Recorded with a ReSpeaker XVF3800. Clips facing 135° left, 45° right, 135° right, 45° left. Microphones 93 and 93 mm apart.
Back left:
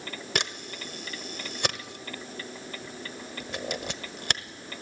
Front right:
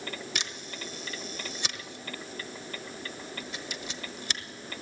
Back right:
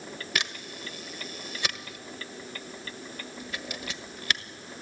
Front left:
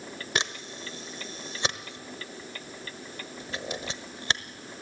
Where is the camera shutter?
105° left, 1.1 m.